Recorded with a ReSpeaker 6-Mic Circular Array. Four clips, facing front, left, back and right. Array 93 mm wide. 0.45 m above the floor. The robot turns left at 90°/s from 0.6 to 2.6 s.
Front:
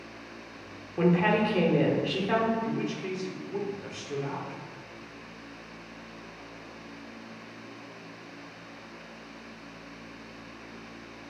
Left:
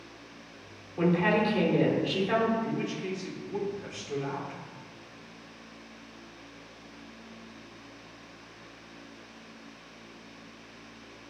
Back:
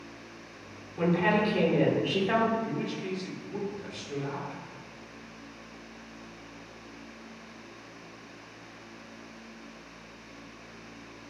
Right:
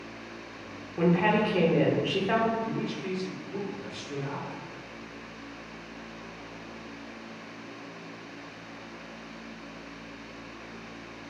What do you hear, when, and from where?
1.0 s a woman speaking: 10° right, 0.8 m; by 2.5 s 150° right, 0.8 m
2.6 s a man speaking: 60° left, 0.9 m